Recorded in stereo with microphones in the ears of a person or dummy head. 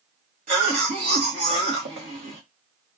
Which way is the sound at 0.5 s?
60° right (ahead or behind).